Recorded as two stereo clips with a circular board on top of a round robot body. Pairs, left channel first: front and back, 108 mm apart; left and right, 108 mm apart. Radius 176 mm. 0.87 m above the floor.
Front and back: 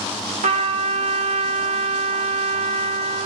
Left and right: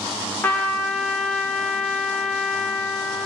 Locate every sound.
0.4 s a trumpet: 165° left, 0.9 m